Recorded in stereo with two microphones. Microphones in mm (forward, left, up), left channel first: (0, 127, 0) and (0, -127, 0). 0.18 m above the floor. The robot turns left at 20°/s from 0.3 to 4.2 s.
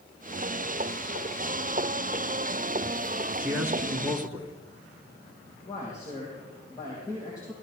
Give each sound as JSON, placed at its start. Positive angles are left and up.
{"t": 3.4, "sound": "a man speaking", "side_deg": -5, "distance_m": 2.0}
{"t": 5.7, "sound": "a man speaking", "side_deg": 15, "distance_m": 6.0}